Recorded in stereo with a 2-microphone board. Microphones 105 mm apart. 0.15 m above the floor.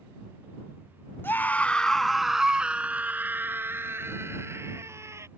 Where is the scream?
20° left (ahead or behind); by 5.3 s 25° right (ahead or behind).